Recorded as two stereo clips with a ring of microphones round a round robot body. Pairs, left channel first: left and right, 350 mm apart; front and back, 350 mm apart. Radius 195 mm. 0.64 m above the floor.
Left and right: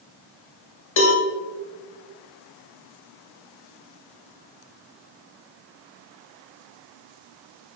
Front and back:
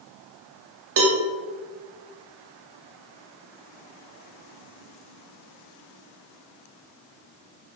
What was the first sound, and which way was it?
A cowbell, 135° left.